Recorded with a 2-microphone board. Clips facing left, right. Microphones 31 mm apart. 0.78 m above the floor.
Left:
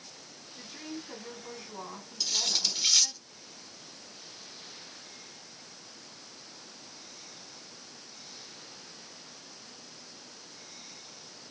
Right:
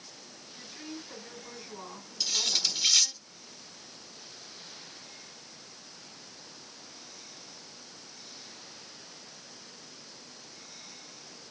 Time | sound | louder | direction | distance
0.6 | a woman speaking | left 2 dB | 35° left (ahead or behind) | 6 m
2.2 | cutlery clinking | right 1 dB | 5° right (ahead or behind) | 1.3 m